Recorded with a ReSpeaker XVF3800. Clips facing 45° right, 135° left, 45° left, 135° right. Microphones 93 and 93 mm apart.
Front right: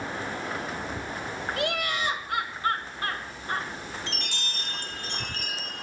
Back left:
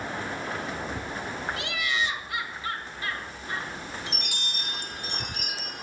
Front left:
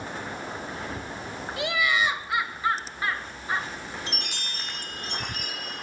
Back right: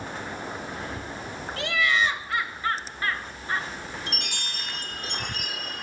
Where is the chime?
150° right, 1.4 m.